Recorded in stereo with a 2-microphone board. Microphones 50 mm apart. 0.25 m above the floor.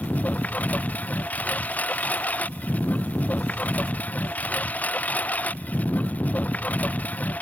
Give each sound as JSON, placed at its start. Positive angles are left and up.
{"t": 0.0, "sound": "a lawn mower", "side_deg": 30}